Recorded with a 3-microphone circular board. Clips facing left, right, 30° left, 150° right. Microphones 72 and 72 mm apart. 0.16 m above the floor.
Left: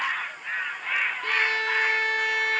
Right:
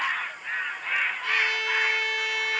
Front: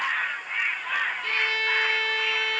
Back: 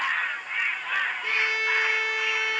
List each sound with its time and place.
1.2 s a violin: 135° left, 1.4 m